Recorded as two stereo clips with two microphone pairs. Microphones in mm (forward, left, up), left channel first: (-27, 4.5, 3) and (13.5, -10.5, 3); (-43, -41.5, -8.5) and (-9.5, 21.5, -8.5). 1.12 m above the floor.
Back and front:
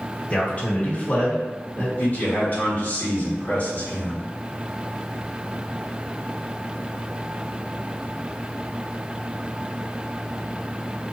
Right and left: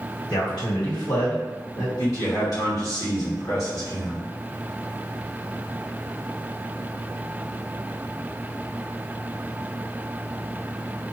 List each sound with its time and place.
0.3 s a man speaking: 145° right, 1.5 m
2.0 s a man speaking: 150° right, 1.8 m